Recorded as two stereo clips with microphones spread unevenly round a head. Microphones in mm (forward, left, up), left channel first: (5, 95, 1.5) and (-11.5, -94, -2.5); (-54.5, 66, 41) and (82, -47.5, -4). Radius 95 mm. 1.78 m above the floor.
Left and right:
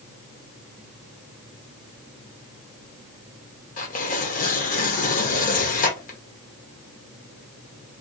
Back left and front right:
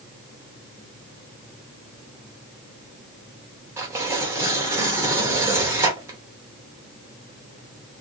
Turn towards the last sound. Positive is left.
turn(degrees=45)